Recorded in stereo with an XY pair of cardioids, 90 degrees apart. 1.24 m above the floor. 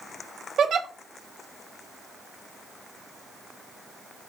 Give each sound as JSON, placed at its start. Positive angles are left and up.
{"t": 0.6, "sound": "a giggle", "azimuth_deg": -65, "distance_m": 1.0}